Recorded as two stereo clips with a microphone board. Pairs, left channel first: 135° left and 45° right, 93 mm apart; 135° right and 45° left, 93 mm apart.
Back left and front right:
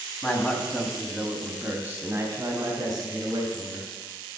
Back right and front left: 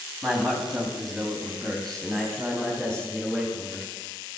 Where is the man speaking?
135° left, 1.7 m; by 3.9 s 50° right, 2.5 m.